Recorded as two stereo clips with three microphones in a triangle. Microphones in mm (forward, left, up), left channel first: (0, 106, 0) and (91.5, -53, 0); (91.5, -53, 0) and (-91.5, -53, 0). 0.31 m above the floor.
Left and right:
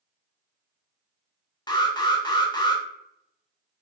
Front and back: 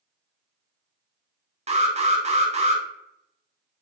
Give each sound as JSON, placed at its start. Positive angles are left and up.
{"t": 1.7, "sound": "an alarm", "azimuth_deg": 170, "distance_m": 0.7}